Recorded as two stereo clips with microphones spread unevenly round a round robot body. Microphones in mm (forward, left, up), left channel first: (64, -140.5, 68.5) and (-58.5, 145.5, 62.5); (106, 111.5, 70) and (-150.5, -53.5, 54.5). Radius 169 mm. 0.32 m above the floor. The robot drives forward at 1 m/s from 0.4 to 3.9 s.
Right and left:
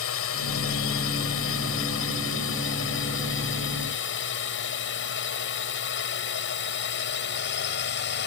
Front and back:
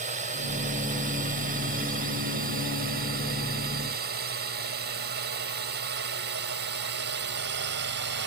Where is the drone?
90° right; by 8.3 s 110° right.